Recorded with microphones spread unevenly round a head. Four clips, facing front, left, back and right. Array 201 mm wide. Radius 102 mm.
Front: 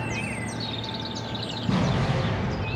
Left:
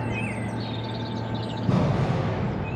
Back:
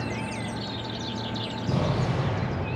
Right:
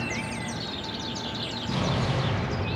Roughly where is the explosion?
Behind left.